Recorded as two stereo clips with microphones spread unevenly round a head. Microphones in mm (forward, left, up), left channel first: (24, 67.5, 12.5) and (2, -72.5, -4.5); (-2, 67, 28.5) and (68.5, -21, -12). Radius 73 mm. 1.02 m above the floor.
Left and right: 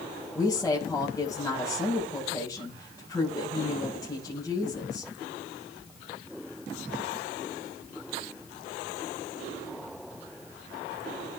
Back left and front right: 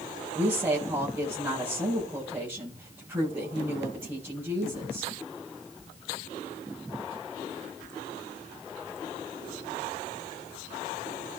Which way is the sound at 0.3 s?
15° left.